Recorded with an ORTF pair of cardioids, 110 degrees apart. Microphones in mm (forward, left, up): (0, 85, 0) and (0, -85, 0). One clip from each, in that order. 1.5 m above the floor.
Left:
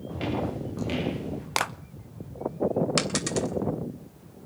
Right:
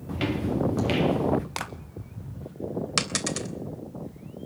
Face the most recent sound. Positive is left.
turn(degrees=-15)